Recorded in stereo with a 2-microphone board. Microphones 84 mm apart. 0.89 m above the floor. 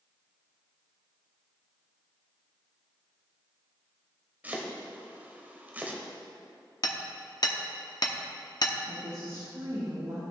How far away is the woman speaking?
About 2.5 m.